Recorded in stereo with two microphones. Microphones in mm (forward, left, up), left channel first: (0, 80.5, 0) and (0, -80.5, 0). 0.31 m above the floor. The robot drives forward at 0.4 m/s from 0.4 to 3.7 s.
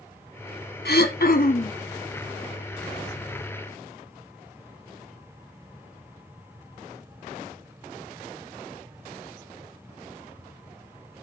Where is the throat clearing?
80° left, 0.8 m; by 1.8 s 55° left (ahead or behind), 0.9 m.